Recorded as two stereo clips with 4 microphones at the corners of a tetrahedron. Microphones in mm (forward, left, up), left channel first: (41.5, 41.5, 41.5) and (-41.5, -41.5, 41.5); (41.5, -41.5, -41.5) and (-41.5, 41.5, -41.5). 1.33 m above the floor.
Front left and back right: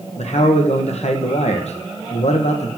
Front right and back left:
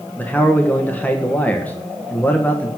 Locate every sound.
0.2 s a man speaking: 30° left, 1.3 m